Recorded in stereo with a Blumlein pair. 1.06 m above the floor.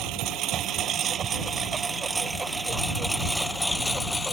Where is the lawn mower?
35° right; by 4.3 s 10° left.